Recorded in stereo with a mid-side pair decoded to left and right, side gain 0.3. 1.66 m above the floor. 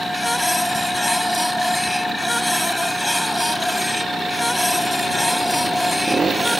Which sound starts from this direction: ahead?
A machine running, at 0.0 s.